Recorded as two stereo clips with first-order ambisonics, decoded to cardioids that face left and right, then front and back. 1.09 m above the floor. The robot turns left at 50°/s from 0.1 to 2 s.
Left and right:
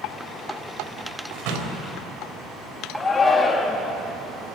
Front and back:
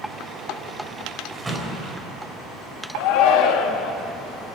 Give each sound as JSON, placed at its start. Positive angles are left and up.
{"t": 1.3, "sound": "a door slam", "azimuth_deg": -95, "distance_m": 4.5}
{"t": 3.0, "sound": "a shout", "azimuth_deg": 15, "distance_m": 2.5}